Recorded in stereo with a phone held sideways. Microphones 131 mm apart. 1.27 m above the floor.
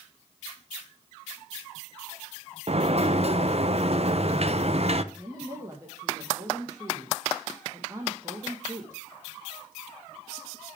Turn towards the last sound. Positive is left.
turn(degrees=-25)  # may be behind; listen again after turning